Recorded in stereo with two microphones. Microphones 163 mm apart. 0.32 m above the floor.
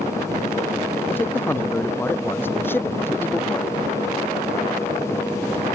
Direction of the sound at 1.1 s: 15° left (ahead or behind).